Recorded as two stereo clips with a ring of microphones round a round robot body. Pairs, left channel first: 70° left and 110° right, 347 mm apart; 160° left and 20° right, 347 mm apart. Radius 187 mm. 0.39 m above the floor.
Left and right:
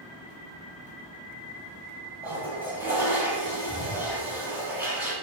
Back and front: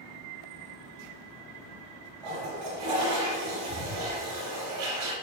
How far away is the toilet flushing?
About 6.5 m.